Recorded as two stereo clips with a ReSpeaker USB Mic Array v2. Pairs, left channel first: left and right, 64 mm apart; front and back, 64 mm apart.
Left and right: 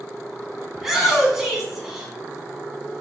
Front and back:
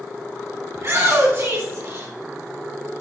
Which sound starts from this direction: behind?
A shout, at 0.8 s.